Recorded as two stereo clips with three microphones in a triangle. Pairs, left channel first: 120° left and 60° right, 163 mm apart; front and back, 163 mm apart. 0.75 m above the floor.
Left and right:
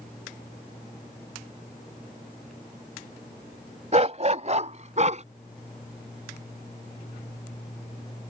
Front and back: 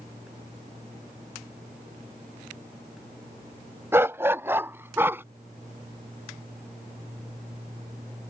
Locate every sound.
3.9 s a dog barking: 105° right